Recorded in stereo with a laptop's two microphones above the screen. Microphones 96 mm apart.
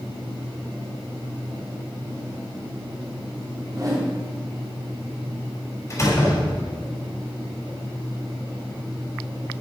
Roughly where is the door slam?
Left.